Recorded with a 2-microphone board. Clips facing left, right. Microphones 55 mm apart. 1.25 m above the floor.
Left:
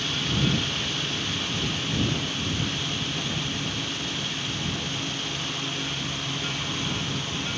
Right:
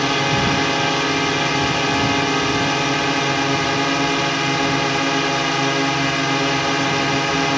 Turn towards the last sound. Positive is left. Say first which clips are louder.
# right 9 dB
turn(degrees=-80)